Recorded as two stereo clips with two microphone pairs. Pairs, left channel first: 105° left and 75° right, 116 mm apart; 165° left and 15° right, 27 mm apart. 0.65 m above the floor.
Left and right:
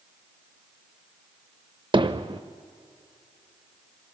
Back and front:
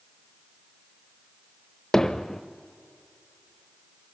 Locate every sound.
1.9 s hammering: 120° right, 0.8 m